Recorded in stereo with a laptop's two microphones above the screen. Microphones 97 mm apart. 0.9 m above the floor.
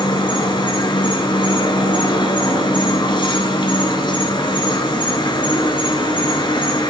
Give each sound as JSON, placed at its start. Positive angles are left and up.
{"t": 0.0, "sound": "an insect", "side_deg": 55, "distance_m": 1.4}